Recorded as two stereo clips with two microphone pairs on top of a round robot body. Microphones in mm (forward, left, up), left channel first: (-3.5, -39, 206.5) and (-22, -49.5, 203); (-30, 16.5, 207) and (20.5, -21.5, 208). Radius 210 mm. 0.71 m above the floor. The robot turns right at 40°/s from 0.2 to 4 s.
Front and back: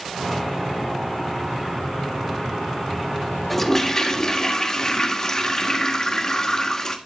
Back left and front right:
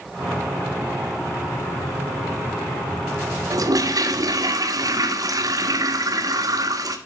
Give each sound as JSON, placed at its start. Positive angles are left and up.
{"t": 3.5, "sound": "a toilet flushing", "azimuth_deg": -50, "distance_m": 1.6}